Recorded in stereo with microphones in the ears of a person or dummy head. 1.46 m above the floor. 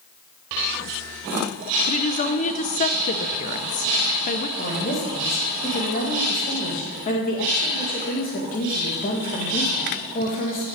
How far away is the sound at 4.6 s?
About 1.9 m.